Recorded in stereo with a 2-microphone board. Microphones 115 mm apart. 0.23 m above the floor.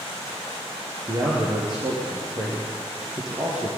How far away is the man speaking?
About 5.5 m.